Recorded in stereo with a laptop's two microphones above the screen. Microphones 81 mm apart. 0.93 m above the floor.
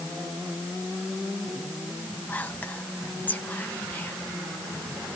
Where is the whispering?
20° left (ahead or behind), 0.5 m.